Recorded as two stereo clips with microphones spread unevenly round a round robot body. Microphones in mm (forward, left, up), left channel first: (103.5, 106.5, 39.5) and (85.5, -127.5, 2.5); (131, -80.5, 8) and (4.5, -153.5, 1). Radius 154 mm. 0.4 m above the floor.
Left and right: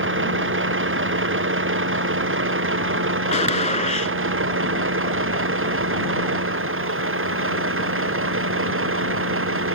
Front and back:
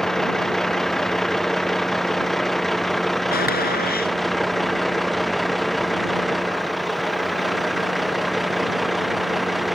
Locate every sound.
0.0 s a vehicle: 55° right; by 9.8 s 60° right
3.3 s a gunshot: 25° left